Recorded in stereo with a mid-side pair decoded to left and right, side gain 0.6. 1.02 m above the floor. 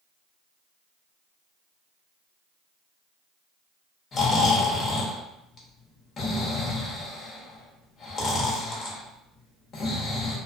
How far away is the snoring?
About 0.9 m.